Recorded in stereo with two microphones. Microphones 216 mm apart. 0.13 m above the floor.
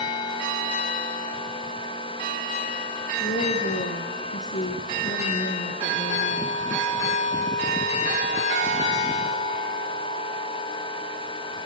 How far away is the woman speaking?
About 2.5 m.